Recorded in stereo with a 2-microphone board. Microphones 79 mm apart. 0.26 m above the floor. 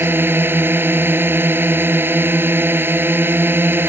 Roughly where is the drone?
Right.